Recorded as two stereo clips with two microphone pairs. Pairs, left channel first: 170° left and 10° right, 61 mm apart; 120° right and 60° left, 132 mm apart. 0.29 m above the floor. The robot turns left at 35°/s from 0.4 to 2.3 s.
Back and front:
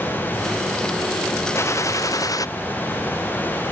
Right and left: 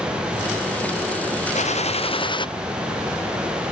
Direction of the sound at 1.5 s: 150° right.